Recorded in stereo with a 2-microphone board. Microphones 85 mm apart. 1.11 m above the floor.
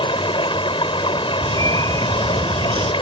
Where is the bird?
80° right.